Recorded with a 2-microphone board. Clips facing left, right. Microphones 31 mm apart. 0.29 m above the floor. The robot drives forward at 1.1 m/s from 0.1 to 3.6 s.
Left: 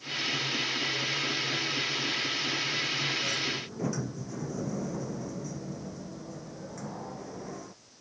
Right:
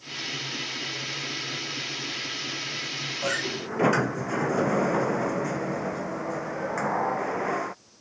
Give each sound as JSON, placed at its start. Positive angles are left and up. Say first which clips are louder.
{"t": 3.2, "sound": "a sliding door", "louder": "right 3 dB", "side_deg": -65}